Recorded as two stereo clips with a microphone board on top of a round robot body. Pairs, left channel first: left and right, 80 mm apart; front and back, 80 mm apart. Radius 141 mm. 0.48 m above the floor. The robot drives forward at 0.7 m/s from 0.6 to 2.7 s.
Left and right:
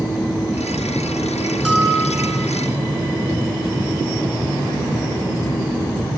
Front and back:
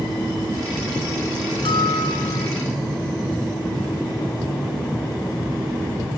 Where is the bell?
5° right, 5 m.